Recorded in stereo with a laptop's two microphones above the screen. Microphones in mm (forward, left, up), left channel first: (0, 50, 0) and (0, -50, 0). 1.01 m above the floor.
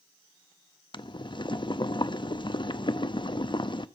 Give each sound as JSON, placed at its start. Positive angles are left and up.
{"t": 0.9, "sound": "boiling", "side_deg": 50, "distance_m": 0.6}